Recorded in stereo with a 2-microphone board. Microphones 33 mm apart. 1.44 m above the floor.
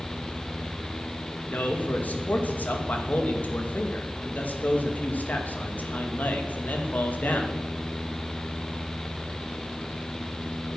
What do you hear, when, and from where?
1.4 s a man speaking: 55° left (ahead or behind), 2.5 m